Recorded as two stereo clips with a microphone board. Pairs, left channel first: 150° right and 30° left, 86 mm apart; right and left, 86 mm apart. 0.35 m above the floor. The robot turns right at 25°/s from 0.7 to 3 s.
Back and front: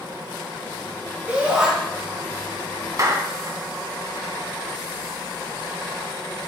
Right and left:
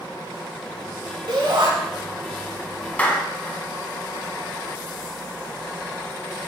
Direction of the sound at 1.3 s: 95° left.